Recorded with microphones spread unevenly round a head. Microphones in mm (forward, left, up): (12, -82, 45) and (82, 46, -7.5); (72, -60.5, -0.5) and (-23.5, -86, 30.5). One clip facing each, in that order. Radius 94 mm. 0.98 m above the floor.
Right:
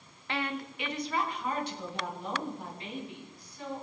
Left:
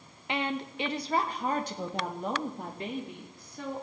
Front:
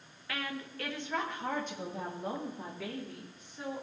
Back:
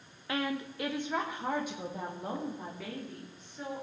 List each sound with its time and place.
0.3 s a woman speaking: 115° left, 0.6 m; by 3.8 s 100° left, 2.5 m